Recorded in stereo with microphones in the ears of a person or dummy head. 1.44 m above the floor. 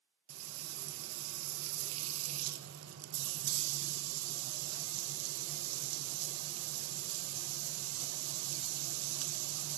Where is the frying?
85° right, 1.7 m.